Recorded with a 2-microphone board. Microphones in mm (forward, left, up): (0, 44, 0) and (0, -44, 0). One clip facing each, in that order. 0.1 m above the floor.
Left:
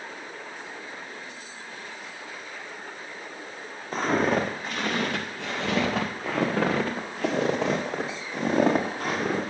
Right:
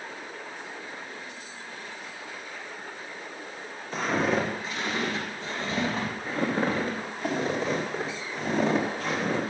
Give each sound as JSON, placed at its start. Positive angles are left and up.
{"t": 3.9, "sound": "footsteps", "side_deg": 40, "distance_m": 2.0}